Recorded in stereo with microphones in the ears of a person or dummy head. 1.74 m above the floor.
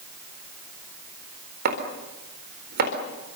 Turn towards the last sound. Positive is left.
turn(degrees=-50)  # may be behind; listen again after turning